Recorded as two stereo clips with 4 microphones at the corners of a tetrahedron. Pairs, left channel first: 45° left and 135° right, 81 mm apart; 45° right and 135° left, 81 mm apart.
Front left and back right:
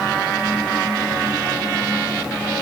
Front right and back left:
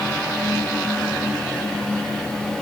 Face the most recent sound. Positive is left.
No sound to turn to.